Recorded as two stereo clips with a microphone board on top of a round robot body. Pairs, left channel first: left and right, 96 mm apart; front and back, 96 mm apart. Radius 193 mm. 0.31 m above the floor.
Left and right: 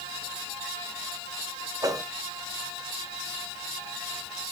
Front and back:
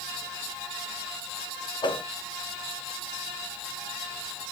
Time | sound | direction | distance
1.8 | a whoosh | 35° right | 1.3 m